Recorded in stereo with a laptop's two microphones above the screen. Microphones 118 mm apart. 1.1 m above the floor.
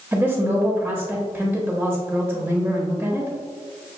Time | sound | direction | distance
0.1 | a woman speaking | 15° right (ahead or behind) | 1.0 m